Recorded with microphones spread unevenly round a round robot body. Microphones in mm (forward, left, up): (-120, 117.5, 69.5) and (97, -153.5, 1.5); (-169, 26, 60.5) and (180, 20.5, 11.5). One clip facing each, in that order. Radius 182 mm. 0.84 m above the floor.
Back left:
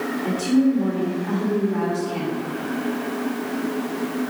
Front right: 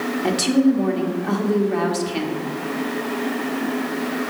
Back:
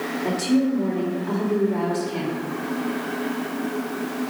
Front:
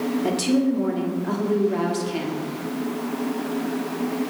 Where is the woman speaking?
55° right, 1.3 m.